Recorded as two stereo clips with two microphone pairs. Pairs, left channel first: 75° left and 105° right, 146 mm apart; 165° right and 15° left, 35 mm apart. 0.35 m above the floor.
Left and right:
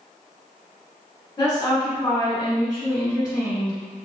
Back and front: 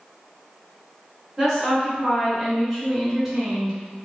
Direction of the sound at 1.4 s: 90° left.